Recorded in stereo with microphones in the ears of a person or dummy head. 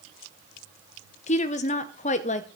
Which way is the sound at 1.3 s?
35° left (ahead or behind).